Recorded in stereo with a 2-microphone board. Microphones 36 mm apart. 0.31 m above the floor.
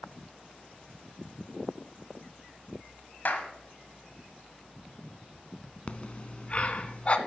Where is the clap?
55° left (ahead or behind), 1.2 m.